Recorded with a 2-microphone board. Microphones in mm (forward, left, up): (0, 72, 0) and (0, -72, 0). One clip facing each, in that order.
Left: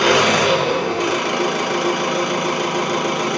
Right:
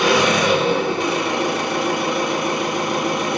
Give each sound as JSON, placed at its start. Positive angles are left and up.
{"t": 0.0, "sound": "an engine running", "side_deg": 85, "distance_m": 1.1}